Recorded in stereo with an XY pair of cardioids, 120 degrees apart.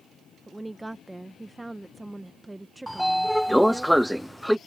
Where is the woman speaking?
10° right.